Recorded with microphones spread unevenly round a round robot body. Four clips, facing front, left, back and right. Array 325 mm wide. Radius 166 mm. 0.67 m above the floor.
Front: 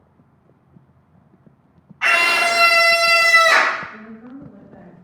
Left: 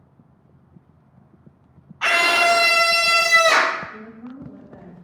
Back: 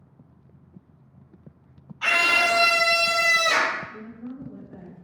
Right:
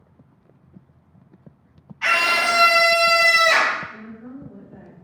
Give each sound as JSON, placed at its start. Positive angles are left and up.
{"t": 2.0, "sound": "a scream", "azimuth_deg": 75, "distance_m": 0.5}
{"t": 3.9, "sound": "a woman speaking", "azimuth_deg": 150, "distance_m": 1.6}